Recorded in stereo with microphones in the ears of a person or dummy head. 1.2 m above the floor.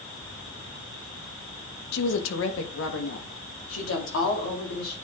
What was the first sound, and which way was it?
A woman speaking, 70° left (ahead or behind).